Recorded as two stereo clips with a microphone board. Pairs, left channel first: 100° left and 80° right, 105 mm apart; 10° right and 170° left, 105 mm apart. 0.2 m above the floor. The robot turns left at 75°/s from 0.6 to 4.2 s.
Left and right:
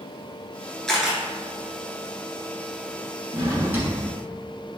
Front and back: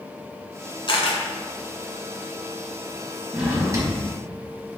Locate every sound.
0.9 s a camera shutter: 15° left, 1.2 m; by 1.2 s 5° right, 1.2 m
3.3 s a drawer: 110° right, 1.2 m; by 4.0 s 160° right, 1.2 m